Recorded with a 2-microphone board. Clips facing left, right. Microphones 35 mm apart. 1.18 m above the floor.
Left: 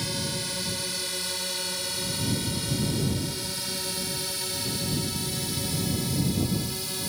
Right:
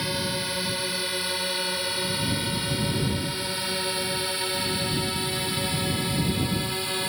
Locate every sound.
0.0 s a drone: 20° right (ahead or behind); by 7.1 s 35° right (ahead or behind)